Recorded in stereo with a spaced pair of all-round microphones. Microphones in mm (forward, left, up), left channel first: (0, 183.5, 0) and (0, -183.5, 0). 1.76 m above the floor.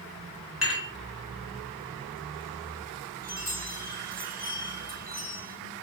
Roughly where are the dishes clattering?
Left.